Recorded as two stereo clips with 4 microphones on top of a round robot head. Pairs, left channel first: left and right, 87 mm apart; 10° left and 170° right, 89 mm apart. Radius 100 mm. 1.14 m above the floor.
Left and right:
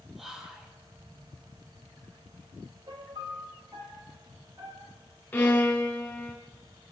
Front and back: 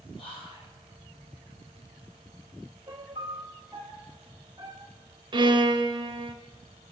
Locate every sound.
0.2 s whispering: 5° right, 2.5 m
2.9 s a piano: 130° right, 0.7 m
5.3 s a violin: 160° left, 1.9 m